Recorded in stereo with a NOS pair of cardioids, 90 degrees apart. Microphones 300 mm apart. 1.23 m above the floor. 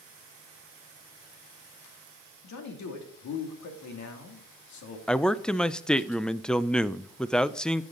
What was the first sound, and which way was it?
A man speaking, 70° left.